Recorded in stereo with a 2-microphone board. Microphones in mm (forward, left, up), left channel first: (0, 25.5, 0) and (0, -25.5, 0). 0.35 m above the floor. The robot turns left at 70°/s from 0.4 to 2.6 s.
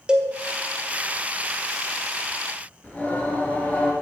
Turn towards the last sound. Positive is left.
turn(degrees=25)  # may be behind; listen again after turning